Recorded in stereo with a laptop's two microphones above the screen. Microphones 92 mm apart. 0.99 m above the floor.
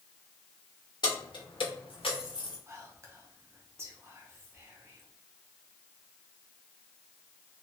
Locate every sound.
1.0 s keys jangling: 50° left (ahead or behind), 1.0 m; by 2.6 s 60° left (ahead or behind), 0.7 m
2.7 s whispering: 30° right (ahead or behind), 0.8 m